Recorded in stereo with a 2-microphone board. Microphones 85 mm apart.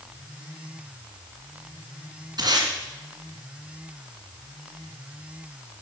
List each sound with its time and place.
2.4 s tape being pulled: 55° right (ahead or behind), 1.9 m